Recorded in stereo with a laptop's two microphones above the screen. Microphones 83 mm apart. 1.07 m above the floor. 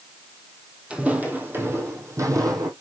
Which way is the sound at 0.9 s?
10° right (ahead or behind).